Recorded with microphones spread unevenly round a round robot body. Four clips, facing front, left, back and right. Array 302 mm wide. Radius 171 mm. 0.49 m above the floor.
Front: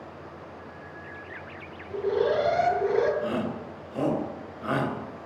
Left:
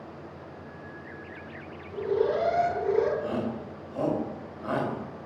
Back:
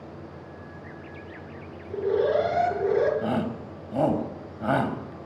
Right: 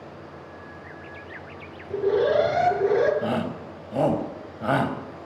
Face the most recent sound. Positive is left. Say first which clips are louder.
# right 4 dB, back 2 dB
turn(degrees=-125)